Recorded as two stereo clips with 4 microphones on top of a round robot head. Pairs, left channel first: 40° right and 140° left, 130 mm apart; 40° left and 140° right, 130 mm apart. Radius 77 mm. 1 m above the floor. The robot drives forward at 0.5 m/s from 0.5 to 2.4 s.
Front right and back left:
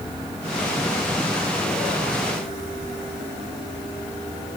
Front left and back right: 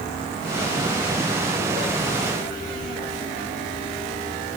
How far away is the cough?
No cough in this recording.